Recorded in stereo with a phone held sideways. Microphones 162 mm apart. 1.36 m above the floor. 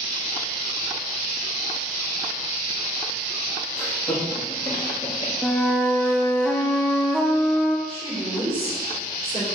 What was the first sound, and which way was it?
Laughter, 5° left (ahead or behind).